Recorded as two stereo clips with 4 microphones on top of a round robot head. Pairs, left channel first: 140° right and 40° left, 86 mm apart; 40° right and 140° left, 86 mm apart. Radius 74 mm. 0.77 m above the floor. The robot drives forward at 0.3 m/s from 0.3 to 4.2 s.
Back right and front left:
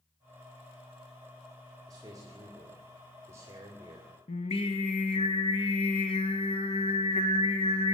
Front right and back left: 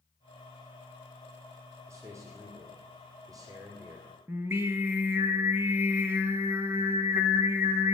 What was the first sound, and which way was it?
A man speaking, 85° left.